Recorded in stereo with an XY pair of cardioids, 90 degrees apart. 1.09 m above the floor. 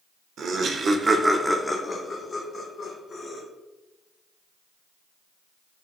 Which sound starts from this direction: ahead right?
Laughter, at 0.4 s.